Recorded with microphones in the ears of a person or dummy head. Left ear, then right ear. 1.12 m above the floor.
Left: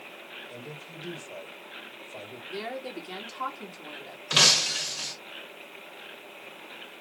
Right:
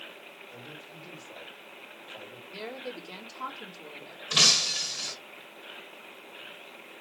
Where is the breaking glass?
35° left (ahead or behind), 1.6 m.